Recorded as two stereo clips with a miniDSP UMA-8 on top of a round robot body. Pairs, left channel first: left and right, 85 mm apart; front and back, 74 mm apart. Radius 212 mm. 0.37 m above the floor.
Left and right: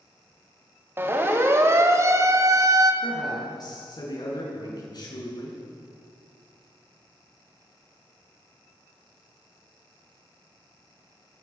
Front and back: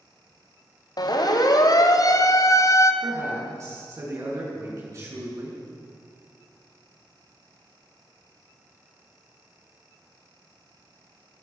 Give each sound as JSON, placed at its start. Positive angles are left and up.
{"t": 1.0, "sound": "a siren", "azimuth_deg": -25, "distance_m": 3.0}
{"t": 3.0, "sound": "a man speaking", "azimuth_deg": 130, "distance_m": 8.0}